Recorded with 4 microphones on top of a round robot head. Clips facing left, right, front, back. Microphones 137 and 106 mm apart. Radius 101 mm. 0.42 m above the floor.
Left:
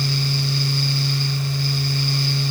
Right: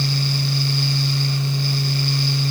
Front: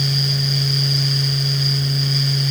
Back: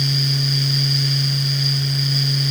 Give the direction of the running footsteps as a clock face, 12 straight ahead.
No running footsteps in this recording.